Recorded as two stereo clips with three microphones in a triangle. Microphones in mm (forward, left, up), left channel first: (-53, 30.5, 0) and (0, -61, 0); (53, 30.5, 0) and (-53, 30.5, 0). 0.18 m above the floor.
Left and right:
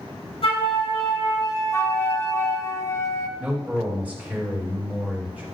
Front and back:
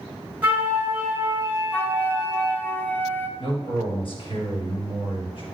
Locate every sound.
0.4 s a flute: 105° left, 3 m
1.7 s a flute: 70° left, 0.7 m
3.4 s a man speaking: 15° left, 3 m